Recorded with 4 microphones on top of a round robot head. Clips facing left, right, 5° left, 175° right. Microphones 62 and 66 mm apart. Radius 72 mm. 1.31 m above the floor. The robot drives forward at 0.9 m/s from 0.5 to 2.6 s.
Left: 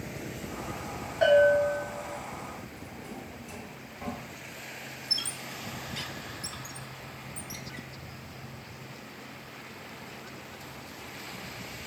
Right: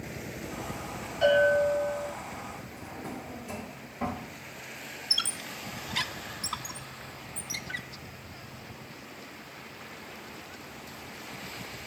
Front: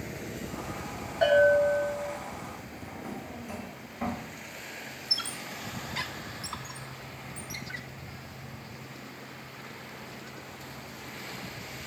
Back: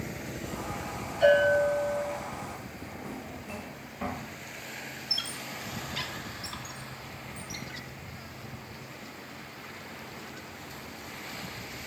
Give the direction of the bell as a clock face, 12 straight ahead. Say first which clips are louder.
Left 2 dB, front 1 dB; 10 o'clock.